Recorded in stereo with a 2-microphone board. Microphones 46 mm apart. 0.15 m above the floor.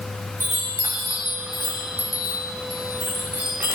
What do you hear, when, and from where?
0.4 s a chime: 55° right (ahead or behind), 2.5 m